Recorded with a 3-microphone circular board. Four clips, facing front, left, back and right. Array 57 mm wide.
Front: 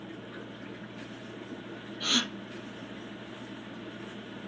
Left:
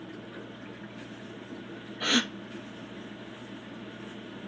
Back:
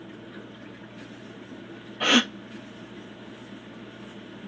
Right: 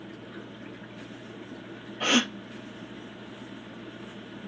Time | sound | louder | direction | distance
2.0 | a gasp | right 3 dB, back 10 dB | 160° right | 0.6 m